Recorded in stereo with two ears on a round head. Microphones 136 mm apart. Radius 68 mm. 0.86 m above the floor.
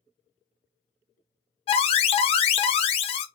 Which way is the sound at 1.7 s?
40° left (ahead or behind).